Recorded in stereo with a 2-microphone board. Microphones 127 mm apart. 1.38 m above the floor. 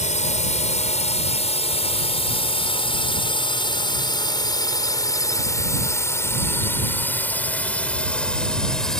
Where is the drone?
60° left (ahead or behind); by 9.0 s 5° left (ahead or behind).